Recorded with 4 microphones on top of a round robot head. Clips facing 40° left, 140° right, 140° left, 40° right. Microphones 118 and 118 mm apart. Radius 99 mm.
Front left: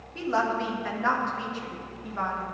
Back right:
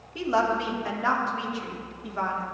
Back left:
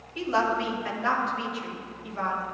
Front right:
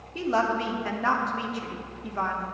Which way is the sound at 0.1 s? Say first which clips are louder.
Back right 2 dB, even; 70° right.